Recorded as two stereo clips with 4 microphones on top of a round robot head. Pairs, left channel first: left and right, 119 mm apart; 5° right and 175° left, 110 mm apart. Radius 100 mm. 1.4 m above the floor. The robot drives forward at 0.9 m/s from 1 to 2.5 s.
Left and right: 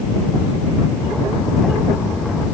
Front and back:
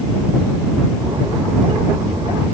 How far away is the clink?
No clink in this recording.